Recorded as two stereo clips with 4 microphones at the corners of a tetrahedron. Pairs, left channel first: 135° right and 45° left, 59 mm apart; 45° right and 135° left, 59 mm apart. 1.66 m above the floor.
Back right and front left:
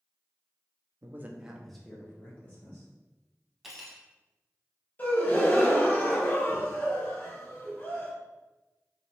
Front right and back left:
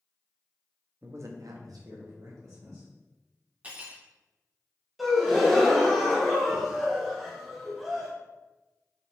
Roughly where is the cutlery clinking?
Behind left.